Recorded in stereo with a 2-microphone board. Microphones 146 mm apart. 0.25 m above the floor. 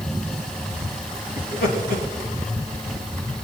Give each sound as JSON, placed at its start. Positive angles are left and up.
{"t": 1.4, "sound": "laughter", "side_deg": 75, "distance_m": 4.5}